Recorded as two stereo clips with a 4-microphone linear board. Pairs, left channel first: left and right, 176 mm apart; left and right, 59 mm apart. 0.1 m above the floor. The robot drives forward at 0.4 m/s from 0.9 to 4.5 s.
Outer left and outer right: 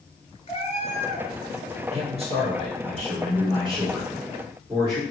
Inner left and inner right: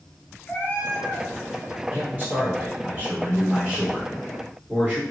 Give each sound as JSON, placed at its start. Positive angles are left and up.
{"t": 0.5, "sound": "a cat meowing", "side_deg": 35, "distance_m": 0.6}
{"t": 1.9, "sound": "a man speaking", "side_deg": -35, "distance_m": 1.4}